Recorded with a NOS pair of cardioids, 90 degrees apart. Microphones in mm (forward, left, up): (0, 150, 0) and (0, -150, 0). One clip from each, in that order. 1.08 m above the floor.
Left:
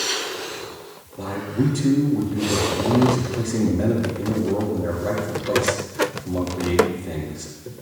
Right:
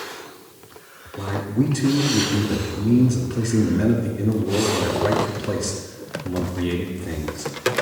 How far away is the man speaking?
About 2 m.